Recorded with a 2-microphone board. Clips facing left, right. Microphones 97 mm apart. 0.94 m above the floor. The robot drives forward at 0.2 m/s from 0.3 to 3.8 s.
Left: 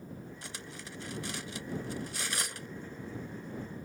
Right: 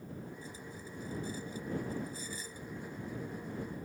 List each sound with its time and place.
0.4 s cutlery clinking: 90° left